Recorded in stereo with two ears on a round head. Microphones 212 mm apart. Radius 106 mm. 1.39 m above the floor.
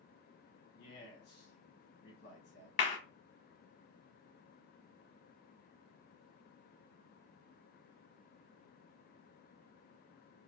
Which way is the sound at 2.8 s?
30° left (ahead or behind).